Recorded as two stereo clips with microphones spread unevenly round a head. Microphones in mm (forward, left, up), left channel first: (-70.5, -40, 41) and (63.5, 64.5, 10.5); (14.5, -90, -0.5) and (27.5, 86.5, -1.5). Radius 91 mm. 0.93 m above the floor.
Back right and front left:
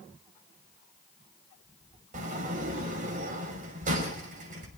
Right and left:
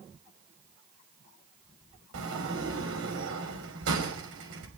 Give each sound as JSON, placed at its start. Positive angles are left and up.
{"t": 2.1, "sound": "a sliding door", "azimuth_deg": 85, "distance_m": 5.5}